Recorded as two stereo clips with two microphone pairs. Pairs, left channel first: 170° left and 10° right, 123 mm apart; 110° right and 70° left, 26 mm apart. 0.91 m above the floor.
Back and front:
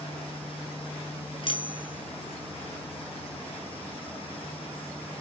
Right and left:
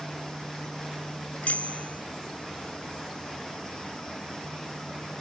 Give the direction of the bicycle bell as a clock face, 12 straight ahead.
5 o'clock.